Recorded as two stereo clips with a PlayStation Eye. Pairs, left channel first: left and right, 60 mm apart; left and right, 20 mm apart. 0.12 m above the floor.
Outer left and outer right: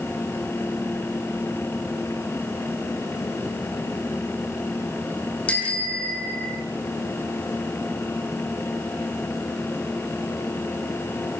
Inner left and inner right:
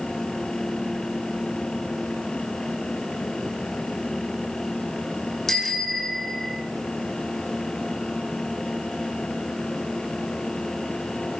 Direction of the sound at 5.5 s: 20° left (ahead or behind).